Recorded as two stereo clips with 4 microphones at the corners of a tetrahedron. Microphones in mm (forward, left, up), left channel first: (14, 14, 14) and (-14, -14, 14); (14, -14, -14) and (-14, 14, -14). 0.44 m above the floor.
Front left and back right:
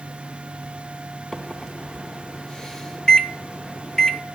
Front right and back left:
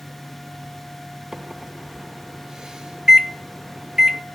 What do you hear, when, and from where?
1.3 s a microwave: 90° left, 0.5 m